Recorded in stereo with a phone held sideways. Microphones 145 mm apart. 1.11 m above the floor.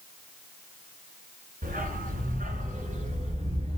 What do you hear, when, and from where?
1.6 s a dog barking: 75° right (ahead or behind), 3 m; by 3.8 s 45° right (ahead or behind), 4 m